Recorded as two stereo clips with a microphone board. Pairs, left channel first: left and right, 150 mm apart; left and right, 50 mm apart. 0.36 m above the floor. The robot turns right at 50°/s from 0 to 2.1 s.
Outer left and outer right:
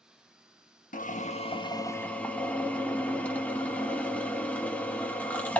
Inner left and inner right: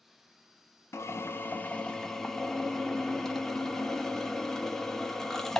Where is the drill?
110° left, 1.0 m; by 5.6 s 170° left, 1.0 m.